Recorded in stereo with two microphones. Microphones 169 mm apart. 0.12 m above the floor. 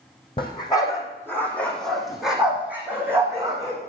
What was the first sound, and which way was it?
A dog barking, 30° left (ahead or behind).